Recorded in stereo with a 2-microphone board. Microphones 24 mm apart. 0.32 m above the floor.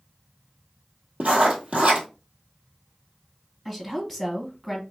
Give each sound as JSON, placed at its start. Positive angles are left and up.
{"t": 1.2, "sound": "writing", "side_deg": -55, "distance_m": 1.6}
{"t": 3.6, "sound": "a woman speaking", "side_deg": -5, "distance_m": 1.5}